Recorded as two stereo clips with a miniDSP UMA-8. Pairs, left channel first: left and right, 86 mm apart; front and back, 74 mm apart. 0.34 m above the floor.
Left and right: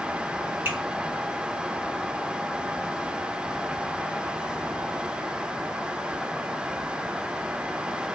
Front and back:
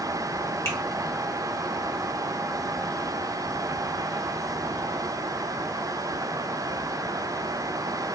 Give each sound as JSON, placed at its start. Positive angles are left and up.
{"t": 0.7, "sound": "a finger snap", "azimuth_deg": -35, "distance_m": 1.6}